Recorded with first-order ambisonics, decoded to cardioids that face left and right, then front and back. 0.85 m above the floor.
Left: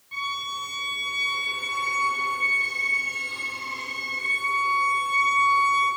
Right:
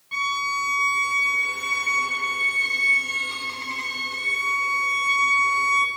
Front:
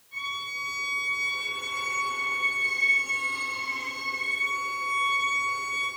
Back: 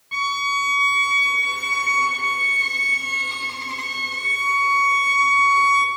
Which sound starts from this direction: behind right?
A violin, at 0.1 s.